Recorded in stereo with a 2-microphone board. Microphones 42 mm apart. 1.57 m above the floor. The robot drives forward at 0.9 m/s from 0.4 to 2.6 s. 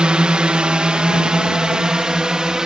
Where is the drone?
20° right (ahead or behind); by 2.7 s 15° right (ahead or behind).